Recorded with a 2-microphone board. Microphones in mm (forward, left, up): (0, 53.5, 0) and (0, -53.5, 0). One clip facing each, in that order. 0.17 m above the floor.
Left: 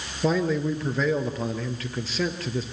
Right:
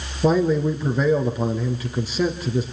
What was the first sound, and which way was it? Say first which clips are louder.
A man speaking: right 5 dB; 15° right (ahead or behind).